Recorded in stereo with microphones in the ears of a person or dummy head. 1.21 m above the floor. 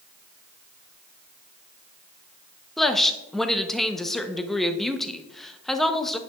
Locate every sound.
2.8 s a woman speaking: 5° left (ahead or behind), 0.6 m